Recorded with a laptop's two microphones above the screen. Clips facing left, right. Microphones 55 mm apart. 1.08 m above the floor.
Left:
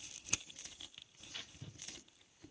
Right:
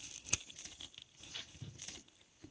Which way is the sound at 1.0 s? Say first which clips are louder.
Left 1 dB; 10° left (ahead or behind).